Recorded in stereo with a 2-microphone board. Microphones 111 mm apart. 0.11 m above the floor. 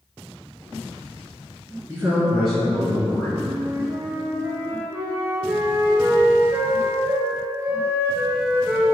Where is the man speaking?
20° right (ahead or behind), 1.5 m; by 3.3 s 30° left (ahead or behind), 1.9 m.